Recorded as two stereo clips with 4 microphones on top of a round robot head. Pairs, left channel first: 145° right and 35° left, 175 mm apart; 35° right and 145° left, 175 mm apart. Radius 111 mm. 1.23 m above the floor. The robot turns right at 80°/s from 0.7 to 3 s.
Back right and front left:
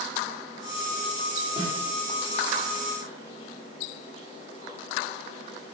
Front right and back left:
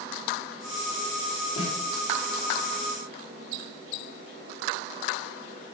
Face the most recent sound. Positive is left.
turn(degrees=90)